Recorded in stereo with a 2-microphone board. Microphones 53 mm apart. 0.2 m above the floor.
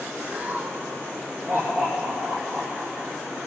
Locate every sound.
0.3 s laughter: 35° right (ahead or behind), 1.5 m; by 3.1 s 65° right (ahead or behind), 5 m